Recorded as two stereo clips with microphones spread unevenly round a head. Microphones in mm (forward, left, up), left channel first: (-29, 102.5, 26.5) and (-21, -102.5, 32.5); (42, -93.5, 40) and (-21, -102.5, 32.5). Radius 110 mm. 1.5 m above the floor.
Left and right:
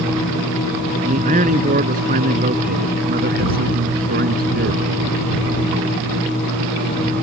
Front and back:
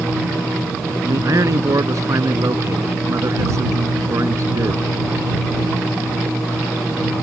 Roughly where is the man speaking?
Behind right.